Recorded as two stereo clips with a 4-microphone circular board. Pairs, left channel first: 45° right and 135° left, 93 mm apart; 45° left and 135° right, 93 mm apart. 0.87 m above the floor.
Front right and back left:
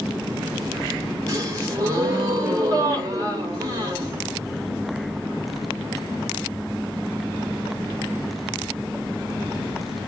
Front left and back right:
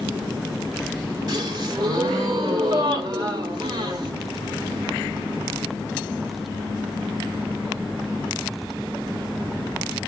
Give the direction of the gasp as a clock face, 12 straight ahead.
6 o'clock.